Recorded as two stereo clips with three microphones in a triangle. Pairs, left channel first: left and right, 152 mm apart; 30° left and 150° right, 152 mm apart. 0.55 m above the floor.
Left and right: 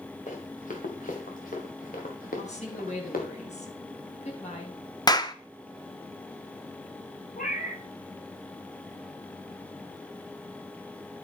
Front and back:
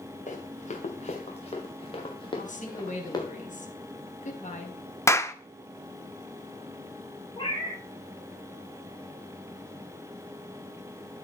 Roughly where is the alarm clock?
I don't hear an alarm clock.